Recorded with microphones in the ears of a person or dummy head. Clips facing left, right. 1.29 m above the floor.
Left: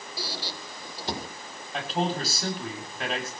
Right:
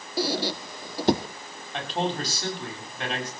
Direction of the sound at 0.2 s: 50° right (ahead or behind).